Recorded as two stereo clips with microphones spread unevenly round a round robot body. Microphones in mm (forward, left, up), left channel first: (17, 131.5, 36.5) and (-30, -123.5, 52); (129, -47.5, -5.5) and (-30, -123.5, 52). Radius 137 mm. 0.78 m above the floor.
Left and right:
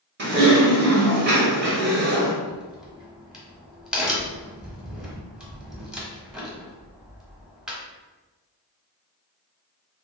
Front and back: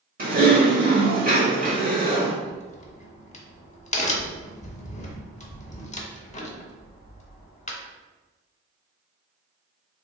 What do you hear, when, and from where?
0.2 s typing on a keyboard: 125° right, 1.1 m
2.4 s a crack: 10° right, 0.7 m